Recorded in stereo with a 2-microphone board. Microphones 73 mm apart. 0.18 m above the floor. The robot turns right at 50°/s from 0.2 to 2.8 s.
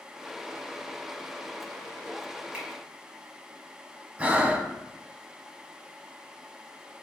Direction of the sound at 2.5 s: 15° right (ahead or behind).